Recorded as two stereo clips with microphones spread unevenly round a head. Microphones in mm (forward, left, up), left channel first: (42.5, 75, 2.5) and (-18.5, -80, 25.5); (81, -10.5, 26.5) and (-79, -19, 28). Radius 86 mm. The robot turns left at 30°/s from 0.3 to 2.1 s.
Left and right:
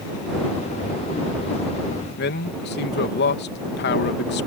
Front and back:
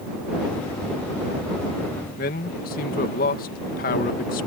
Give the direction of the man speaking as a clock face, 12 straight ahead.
11 o'clock.